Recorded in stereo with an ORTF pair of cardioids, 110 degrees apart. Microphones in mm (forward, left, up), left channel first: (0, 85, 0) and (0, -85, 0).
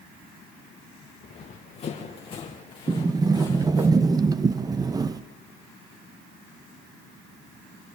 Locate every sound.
1.2 s running footsteps: 40° left, 4 m; by 3.9 s 20° left, 4 m
2.9 s a sliding door: 25° right, 0.7 m